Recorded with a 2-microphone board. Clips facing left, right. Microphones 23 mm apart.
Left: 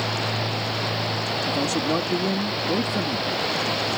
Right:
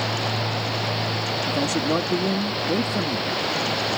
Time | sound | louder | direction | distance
1.5 | a man speaking | right 1 dB | centre (ahead or behind) | ?